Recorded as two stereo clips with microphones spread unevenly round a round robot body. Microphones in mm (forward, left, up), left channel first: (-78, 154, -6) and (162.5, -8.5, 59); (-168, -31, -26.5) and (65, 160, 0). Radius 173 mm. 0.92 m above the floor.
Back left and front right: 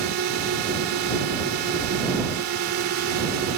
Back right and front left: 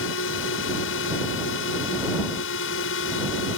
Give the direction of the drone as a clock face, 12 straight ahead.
3 o'clock.